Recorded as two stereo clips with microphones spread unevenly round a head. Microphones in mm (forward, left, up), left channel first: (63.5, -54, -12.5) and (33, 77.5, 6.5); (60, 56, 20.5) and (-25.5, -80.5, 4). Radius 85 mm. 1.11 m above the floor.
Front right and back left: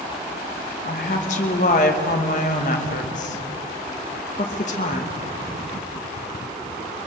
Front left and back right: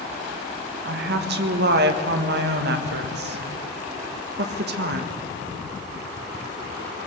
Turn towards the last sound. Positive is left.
turn(degrees=-120)